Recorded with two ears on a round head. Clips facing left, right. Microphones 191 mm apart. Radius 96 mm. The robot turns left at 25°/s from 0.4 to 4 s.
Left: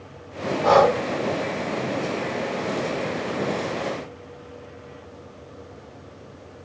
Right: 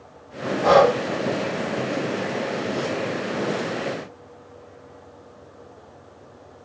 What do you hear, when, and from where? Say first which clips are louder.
0.6 s breathing: right 1 dB; 35° right (ahead or behind), 0.8 m; by 1.0 s 40° right (ahead or behind), 0.8 m